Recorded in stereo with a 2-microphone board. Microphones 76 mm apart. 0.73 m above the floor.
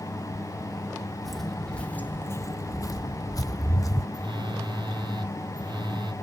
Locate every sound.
1.2 s footsteps: centre (ahead or behind), 1.3 m; by 4.0 s 50° left (ahead or behind), 1.8 m
4.1 s a phone buzzing: 85° right, 1.0 m